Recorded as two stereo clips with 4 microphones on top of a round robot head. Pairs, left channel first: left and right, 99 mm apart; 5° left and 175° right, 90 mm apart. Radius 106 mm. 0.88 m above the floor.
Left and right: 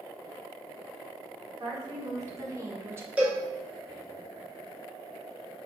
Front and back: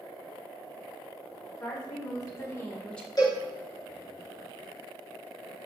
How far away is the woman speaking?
About 1.7 m.